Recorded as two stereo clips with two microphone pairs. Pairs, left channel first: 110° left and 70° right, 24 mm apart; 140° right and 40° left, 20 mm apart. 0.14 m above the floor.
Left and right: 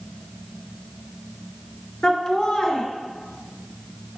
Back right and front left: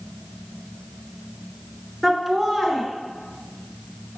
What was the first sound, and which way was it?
Laughter, 140° left.